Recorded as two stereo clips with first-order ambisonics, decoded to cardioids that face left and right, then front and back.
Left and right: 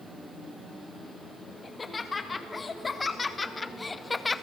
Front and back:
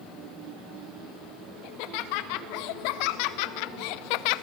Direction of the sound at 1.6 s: 15° left.